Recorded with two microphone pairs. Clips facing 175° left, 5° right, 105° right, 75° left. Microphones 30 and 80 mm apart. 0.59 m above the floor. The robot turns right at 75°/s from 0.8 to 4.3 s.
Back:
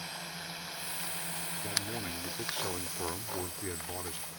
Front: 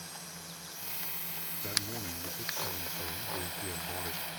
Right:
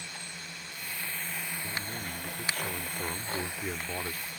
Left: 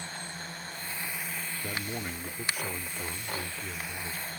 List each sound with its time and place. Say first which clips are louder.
0.0 s a drone: back 5 dB, left 4 dB; 125° left; by 4.4 s 25° left
1.6 s a man speaking: front 1 dB, left 2 dB; 80° left; by 4.3 s 80° right